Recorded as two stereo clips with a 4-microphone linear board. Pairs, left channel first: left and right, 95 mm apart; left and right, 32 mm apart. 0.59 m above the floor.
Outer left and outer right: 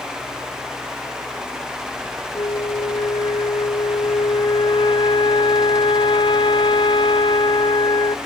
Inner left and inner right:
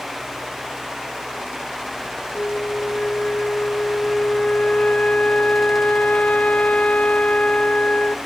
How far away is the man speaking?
I don't hear a man speaking.